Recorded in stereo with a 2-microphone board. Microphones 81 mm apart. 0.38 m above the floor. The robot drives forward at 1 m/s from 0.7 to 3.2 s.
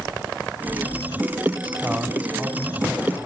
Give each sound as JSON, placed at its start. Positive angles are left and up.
{"t": 1.6, "sound": "a man speaking", "side_deg": -20, "distance_m": 2.5}